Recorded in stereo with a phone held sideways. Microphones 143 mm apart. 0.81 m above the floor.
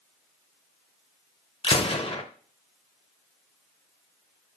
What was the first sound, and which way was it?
A gunshot, 40° left (ahead or behind).